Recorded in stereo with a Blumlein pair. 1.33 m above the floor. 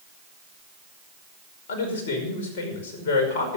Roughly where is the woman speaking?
Ahead left.